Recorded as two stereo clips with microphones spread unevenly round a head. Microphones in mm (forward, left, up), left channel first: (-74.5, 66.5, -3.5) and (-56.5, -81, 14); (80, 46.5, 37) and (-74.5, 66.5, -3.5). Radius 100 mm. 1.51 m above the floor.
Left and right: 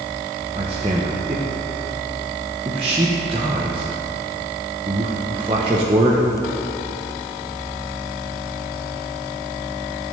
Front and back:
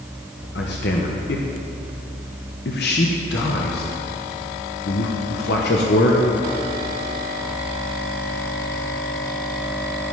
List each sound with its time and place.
0.6 s a man speaking: 20° right, 0.9 m